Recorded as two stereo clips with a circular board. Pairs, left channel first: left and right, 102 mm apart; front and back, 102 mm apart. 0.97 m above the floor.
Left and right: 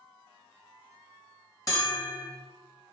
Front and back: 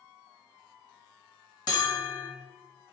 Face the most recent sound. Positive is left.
turn(degrees=40)